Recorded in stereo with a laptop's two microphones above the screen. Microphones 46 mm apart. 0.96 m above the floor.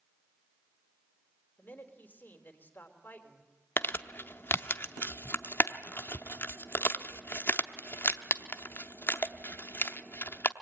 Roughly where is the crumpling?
Left.